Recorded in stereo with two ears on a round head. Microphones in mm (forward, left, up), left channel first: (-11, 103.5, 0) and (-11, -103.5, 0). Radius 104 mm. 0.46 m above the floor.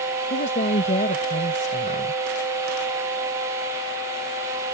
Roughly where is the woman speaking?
Left.